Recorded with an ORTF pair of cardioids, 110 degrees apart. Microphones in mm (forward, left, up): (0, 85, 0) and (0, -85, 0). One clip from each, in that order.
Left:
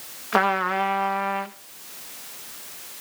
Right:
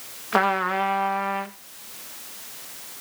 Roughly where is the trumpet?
Ahead.